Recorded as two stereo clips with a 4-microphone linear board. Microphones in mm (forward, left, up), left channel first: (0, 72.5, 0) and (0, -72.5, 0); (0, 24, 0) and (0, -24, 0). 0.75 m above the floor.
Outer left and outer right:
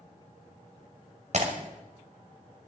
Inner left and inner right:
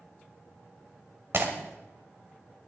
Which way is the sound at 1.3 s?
55° right (ahead or behind).